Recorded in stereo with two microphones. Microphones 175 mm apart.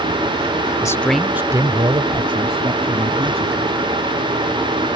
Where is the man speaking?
20° left (ahead or behind); by 3.7 s 35° right (ahead or behind).